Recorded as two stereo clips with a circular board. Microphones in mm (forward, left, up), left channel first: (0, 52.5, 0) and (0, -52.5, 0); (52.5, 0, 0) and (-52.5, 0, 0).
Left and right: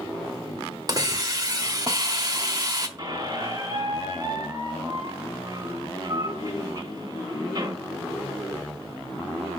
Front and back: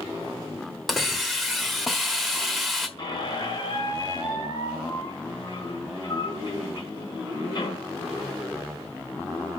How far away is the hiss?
About 1.3 m.